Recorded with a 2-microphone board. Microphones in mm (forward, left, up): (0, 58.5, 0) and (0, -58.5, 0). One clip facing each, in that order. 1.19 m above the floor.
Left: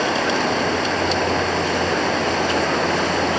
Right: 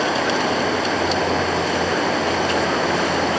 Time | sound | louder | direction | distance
0.0 | running water | even | centre (ahead or behind) | ?